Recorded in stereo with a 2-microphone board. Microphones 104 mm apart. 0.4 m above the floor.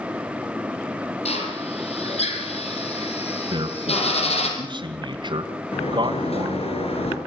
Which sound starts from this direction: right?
A man speaking, at 3.5 s.